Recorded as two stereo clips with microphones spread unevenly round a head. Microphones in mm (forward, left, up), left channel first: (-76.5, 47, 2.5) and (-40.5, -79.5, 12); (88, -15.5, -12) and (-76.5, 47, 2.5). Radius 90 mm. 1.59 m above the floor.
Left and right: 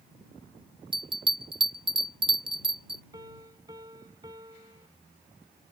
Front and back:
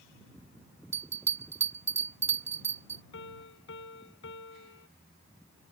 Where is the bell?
125° right.